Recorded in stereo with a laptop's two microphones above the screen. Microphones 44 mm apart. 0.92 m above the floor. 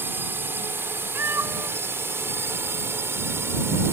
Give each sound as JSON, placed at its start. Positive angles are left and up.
{"t": 0.0, "sound": "a drone", "side_deg": -55}
{"t": 1.1, "sound": "a cat meowing", "side_deg": -60}